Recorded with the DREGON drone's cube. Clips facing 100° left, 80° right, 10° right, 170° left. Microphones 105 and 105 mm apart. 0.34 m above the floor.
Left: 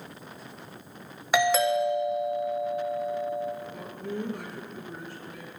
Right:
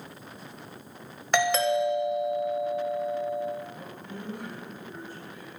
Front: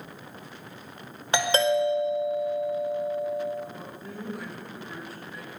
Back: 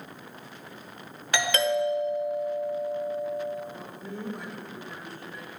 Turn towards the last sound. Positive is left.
turn(degrees=80)